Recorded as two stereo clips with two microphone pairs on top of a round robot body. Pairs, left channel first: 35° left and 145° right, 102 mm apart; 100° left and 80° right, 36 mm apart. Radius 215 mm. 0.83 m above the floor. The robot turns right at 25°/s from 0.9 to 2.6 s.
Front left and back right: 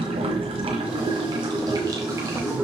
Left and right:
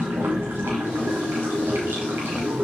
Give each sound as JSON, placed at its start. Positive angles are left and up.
{"t": 0.0, "sound": "running water", "azimuth_deg": -110, "distance_m": 1.3}